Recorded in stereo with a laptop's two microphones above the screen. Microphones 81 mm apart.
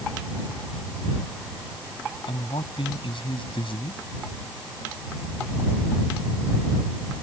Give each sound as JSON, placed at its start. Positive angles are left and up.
{"t": 2.3, "sound": "a man speaking", "side_deg": 85}